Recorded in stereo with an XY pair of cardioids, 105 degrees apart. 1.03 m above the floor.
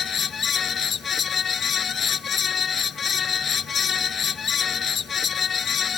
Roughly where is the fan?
Ahead left.